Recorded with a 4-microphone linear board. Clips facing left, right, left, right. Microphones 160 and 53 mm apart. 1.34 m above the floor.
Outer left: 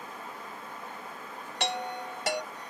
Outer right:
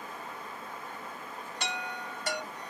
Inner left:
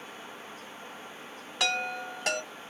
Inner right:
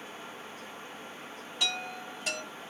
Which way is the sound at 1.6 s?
75° left (ahead or behind).